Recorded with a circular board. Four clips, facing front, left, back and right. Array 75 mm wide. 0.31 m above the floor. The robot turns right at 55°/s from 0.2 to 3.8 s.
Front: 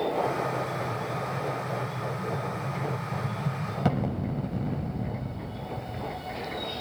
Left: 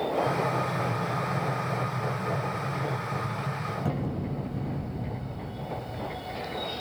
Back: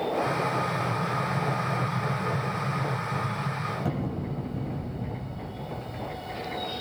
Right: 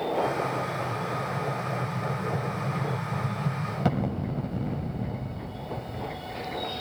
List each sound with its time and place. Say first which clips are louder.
0.3 s an explosion: left 1 dB, back 2 dB; 115° left, 1.1 m; by 6.3 s 50° right, 1.1 m